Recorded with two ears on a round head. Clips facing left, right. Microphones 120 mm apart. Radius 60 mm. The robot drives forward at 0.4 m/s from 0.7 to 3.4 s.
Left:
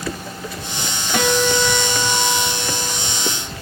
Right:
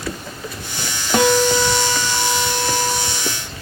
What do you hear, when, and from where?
1.1 s a guitar: 25° right (ahead or behind), 1.5 m; by 3.3 s 20° right (ahead or behind), 2 m